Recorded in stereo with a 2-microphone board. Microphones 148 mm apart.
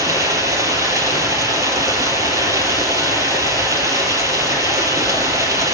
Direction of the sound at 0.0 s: 20° right (ahead or behind).